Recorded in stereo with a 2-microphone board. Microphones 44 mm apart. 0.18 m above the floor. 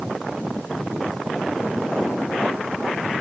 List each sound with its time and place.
Only background noise.